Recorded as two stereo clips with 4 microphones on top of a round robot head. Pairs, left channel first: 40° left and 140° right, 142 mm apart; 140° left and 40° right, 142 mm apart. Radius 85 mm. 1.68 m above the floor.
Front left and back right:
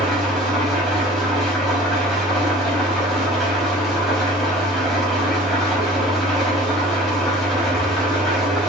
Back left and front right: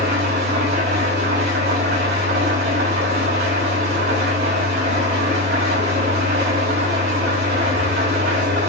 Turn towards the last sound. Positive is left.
turn(degrees=-50)